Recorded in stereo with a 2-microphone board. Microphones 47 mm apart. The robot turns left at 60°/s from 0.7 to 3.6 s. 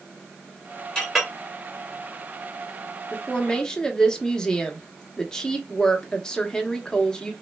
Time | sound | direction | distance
0.9 | a clink | 20° left (ahead or behind) | 1.2 m
3.1 | a woman speaking | 25° left (ahead or behind) | 0.7 m